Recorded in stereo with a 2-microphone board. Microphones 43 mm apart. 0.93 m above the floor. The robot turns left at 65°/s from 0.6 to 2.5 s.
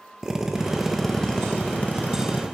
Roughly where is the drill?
Behind.